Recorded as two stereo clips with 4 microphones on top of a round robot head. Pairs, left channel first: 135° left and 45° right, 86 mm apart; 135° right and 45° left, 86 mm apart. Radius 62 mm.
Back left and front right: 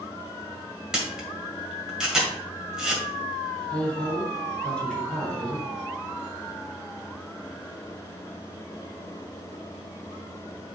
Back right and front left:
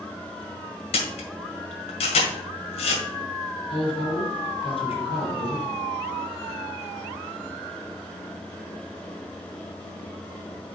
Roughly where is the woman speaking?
Behind right.